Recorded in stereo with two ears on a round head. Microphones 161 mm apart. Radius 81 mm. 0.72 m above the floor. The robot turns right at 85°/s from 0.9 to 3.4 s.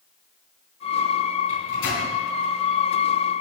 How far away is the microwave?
About 5 m.